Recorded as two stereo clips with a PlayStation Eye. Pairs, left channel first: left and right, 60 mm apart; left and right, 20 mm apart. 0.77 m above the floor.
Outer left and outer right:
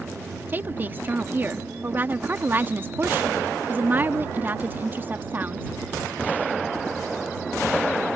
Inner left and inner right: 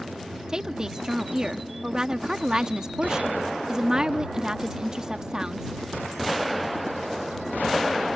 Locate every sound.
0.5 s a woman speaking: 30° right (ahead or behind)